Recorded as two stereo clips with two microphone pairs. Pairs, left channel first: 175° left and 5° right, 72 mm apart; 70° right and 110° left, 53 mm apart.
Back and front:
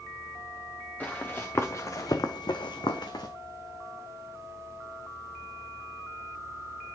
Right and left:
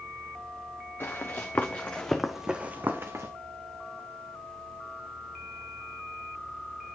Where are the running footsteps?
115° right, 2 m; by 3.3 s 145° left, 1.5 m.